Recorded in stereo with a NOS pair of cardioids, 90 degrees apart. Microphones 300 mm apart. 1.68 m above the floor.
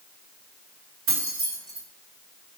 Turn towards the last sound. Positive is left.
turn(degrees=-50)